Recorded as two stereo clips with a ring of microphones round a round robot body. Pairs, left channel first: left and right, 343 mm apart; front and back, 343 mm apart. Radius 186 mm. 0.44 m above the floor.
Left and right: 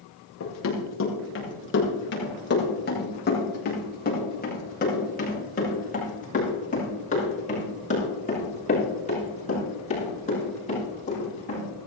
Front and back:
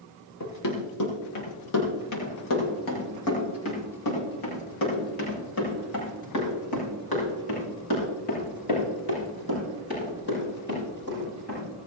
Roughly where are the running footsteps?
Ahead left.